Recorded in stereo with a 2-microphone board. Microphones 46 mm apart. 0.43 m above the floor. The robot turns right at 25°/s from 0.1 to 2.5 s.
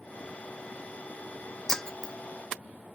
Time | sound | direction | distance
1.7 | breaking glass | 15° left (ahead or behind) | ?